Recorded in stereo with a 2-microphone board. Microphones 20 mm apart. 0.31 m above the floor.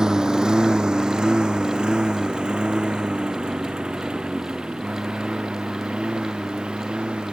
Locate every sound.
0.0 s a lawn mower: 25° right (ahead or behind); by 7.3 s 45° right (ahead or behind)